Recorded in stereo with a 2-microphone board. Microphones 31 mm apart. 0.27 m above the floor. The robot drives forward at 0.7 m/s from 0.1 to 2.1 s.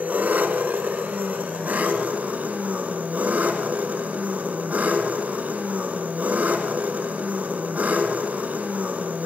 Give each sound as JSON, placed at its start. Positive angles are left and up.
{"t": 0.0, "sound": "an engine running", "side_deg": -65, "distance_m": 1.7}